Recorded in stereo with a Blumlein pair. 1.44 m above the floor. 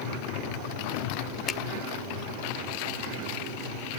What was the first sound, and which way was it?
A finger snap, 20° left.